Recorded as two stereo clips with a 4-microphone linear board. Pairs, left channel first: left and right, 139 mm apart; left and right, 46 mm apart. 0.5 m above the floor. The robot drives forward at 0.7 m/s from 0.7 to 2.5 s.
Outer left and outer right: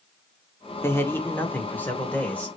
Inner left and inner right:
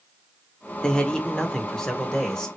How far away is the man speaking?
About 1.0 m.